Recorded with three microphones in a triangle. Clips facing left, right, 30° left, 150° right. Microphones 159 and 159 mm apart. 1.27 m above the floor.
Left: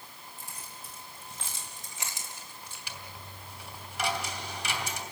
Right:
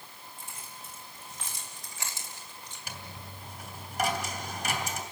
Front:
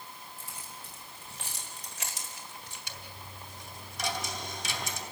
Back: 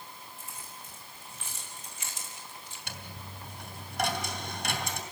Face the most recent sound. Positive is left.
turn(degrees=-135)